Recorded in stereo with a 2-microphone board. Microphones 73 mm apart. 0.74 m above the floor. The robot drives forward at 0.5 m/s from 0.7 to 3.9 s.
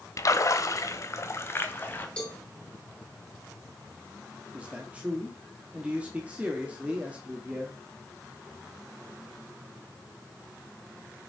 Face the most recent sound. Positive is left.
turn(degrees=-15)  # may be behind; listen again after turning